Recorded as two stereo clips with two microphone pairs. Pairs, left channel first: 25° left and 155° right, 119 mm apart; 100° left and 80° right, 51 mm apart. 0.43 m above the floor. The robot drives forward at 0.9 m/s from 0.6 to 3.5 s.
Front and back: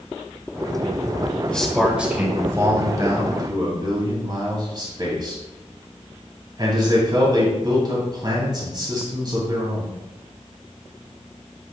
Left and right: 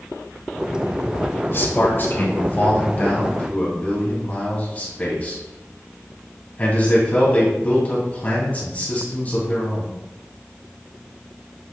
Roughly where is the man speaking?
Left.